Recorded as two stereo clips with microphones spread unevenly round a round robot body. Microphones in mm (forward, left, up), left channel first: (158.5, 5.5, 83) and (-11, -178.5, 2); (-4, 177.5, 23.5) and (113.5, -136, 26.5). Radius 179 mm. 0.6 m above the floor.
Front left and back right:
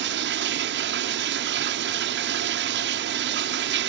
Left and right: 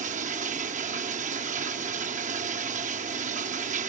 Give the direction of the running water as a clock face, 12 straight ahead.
5 o'clock.